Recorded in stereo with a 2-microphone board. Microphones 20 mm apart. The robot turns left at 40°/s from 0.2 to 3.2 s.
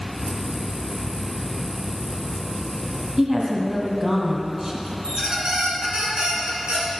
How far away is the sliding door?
I don't hear a sliding door.